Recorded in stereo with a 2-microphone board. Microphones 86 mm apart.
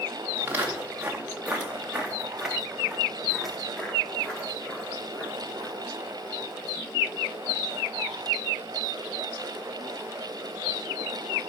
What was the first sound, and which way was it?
Footsteps, 25° right (ahead or behind).